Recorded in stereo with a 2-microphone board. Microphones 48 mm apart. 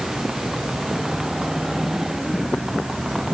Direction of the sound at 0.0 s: 5° right (ahead or behind).